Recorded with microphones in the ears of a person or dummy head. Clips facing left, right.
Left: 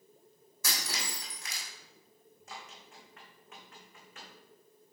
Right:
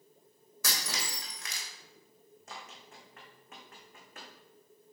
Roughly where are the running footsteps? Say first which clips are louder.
Even; right.